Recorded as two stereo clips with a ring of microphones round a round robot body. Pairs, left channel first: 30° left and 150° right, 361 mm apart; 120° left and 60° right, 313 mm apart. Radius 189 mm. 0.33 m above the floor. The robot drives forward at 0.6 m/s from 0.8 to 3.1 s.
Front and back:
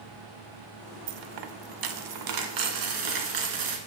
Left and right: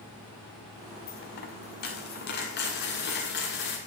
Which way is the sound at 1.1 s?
175° right.